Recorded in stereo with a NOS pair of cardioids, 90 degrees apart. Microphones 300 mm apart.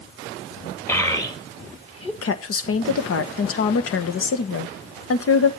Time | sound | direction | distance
0.9 | a child speaking | 10° left | 1.9 m
2.2 | a woman speaking | 55° left | 1.3 m